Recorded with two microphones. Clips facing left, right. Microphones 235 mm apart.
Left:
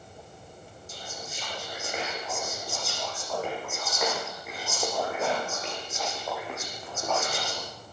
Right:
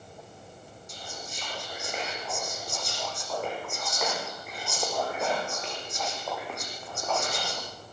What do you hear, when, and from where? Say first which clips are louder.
0.9 s whispering: left 1 dB; 5° left (ahead or behind), 8 m